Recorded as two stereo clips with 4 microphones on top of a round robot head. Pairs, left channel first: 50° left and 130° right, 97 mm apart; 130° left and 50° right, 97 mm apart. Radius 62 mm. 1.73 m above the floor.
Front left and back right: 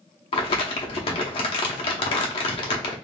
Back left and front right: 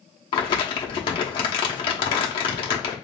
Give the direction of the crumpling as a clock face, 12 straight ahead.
9 o'clock.